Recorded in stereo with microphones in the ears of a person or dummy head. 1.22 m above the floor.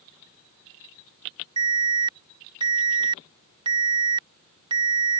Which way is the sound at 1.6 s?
30° right (ahead or behind).